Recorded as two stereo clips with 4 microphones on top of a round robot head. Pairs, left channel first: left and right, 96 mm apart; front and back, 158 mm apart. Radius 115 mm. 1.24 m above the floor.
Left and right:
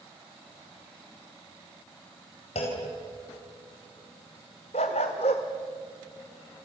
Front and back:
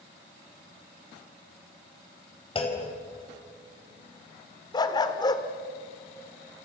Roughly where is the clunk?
Ahead left.